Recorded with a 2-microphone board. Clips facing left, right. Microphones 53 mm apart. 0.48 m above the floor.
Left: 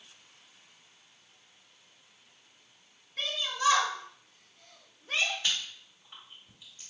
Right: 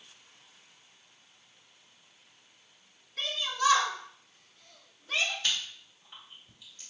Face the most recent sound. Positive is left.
turn(degrees=10)  # may be behind; listen again after turning